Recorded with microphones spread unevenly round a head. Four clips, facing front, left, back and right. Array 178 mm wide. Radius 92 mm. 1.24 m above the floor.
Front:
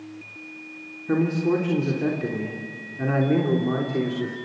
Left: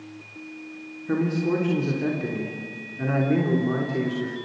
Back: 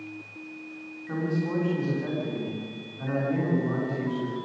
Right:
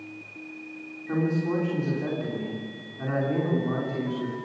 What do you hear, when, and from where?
1.1 s a man speaking: 30° left, 3.5 m